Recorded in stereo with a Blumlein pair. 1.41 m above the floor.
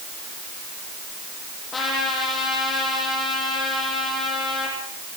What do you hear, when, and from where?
1.7 s a trumpet: 15° left, 10 m